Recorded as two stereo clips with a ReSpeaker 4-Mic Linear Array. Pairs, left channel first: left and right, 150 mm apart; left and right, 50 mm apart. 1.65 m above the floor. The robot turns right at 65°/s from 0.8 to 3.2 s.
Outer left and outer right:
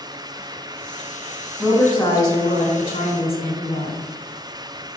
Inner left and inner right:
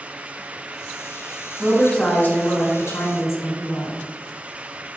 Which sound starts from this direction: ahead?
A woman speaking, at 1.6 s.